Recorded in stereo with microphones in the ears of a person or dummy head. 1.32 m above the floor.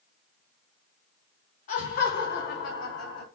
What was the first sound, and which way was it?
Laughter, 40° left (ahead or behind).